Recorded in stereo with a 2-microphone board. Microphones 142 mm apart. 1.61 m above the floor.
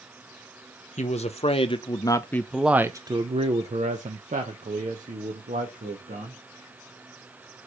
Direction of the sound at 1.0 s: 55° left (ahead or behind).